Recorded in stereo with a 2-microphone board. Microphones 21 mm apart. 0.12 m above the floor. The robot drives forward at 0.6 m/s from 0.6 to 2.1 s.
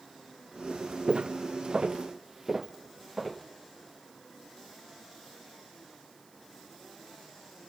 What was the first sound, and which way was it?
Footsteps, 55° right (ahead or behind).